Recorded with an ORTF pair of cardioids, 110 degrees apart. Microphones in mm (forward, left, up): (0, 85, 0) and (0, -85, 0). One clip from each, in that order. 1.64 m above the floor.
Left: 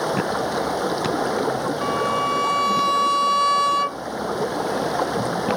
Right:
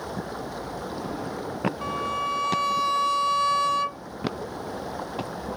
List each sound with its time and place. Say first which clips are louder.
0.0 s running water: left 11 dB; 70° left
1.8 s a violin: left 7 dB; 30° left